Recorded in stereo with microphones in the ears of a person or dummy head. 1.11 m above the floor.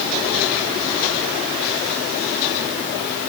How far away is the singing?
No singing in this recording.